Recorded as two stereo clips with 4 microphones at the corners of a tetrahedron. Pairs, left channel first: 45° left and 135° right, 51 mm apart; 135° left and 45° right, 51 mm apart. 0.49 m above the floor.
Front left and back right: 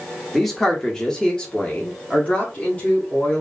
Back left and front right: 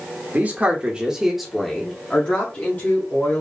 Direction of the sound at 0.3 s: 40° right.